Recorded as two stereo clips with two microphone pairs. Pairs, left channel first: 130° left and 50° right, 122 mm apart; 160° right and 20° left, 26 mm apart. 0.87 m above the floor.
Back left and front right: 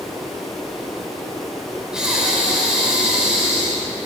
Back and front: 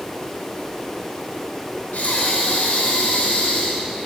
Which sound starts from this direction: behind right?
Breathing, at 1.9 s.